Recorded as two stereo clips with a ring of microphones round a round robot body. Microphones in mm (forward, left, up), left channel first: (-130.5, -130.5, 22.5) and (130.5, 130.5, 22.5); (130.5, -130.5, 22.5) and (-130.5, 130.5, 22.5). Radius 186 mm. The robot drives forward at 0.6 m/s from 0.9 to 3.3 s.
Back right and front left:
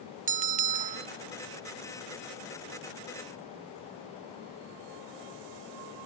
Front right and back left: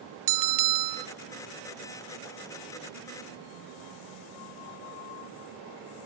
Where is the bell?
110° left, 0.7 m; by 1.1 s 120° left, 0.8 m.